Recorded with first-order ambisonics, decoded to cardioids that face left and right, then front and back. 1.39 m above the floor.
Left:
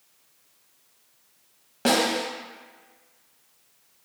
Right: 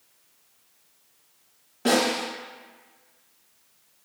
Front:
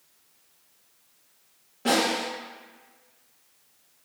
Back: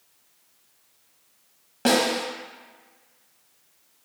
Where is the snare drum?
140° left, 0.8 m.